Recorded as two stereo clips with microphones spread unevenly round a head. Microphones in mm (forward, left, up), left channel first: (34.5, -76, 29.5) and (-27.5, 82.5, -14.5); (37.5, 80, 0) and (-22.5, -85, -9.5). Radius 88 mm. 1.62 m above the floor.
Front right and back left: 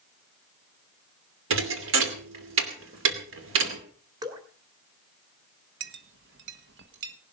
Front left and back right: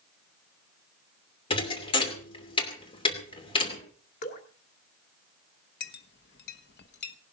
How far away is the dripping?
About 2 m.